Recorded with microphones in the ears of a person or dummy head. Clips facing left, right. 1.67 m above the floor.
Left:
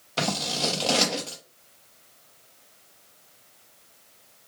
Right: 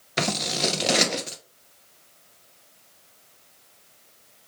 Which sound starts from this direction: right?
Scissors, at 0.2 s.